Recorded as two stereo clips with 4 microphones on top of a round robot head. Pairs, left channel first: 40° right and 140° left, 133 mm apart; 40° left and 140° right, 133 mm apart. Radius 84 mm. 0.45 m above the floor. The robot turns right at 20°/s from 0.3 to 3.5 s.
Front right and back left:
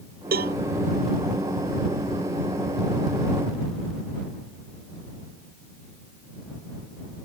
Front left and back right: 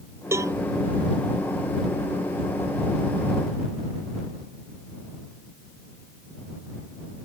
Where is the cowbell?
150° left.